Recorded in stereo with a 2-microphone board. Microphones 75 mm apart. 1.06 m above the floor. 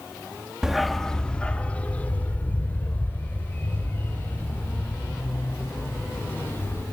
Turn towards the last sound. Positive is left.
turn(degrees=30)  # may be behind; listen again after turning